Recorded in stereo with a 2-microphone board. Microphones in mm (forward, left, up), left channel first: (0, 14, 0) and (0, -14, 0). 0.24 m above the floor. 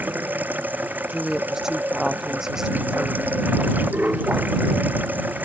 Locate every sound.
0.0 s running water: 85° right
1.1 s a woman speaking: 20° right (ahead or behind)